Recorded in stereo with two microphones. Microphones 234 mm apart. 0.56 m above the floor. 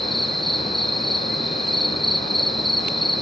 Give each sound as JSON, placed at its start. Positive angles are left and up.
{"t": 0.0, "sound": "an insect", "side_deg": 0, "distance_m": 0.8}